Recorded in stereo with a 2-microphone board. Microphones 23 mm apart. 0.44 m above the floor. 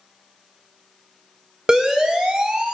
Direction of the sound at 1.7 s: 35° right (ahead or behind).